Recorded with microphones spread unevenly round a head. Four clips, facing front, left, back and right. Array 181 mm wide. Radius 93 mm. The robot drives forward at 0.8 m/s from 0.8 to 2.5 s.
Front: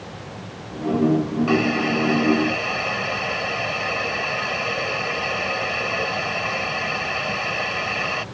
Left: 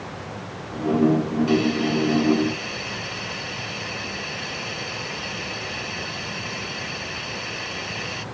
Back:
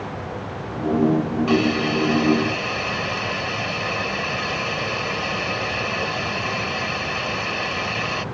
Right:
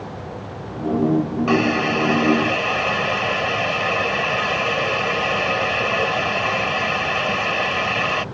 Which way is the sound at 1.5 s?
75° right.